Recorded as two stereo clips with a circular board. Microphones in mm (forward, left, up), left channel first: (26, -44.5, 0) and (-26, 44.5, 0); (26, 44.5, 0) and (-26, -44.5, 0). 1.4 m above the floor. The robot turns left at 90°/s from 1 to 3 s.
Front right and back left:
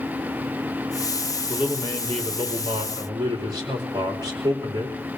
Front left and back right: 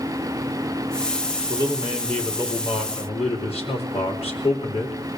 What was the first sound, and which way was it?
A man speaking, 155° right.